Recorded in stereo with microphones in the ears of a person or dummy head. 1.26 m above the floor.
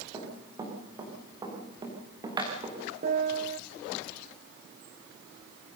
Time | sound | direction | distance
0.1 | running footsteps | 15° right (ahead or behind) | 7.5 m
3.0 | a piano | 45° right (ahead or behind) | 0.8 m